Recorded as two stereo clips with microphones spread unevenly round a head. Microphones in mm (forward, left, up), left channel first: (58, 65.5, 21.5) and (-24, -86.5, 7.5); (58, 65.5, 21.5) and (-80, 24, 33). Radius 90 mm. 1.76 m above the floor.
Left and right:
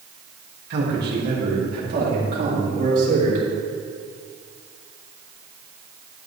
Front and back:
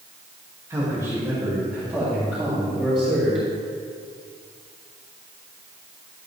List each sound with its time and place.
0.7 s a man speaking: 90° right, 3 m; by 3.4 s 75° right, 5.5 m